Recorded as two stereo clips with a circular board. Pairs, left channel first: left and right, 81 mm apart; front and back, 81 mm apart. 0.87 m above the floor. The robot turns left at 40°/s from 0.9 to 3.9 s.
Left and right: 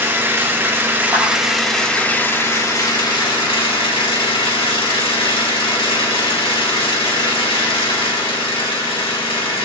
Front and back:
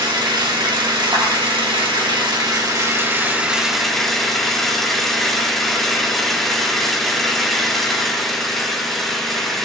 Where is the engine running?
150° right, 1.7 m; by 9.7 s 90° left, 1.7 m.